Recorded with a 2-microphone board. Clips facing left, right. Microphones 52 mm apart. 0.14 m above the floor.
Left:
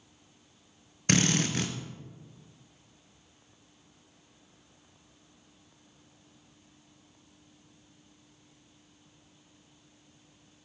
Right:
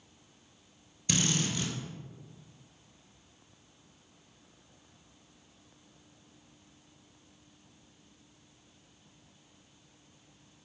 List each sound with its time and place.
1.1 s a drill: 60° left (ahead or behind), 0.8 m